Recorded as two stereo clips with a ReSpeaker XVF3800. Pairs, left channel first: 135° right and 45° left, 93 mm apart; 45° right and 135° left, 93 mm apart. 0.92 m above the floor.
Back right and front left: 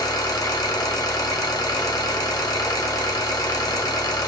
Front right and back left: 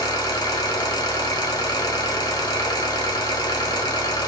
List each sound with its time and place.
0.0 s an engine running: 90° right, 1.2 m